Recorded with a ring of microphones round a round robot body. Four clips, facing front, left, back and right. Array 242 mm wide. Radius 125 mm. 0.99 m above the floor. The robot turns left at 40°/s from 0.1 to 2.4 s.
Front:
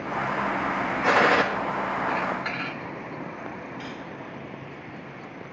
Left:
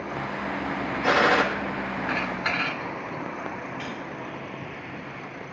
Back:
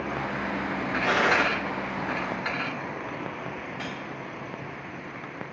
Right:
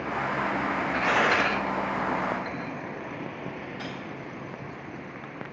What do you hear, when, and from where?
1.0 s a gunshot: 25° left, 1.5 m; by 1.4 s 10° left, 1.5 m
3.8 s cutlery clinking: 160° right, 3 m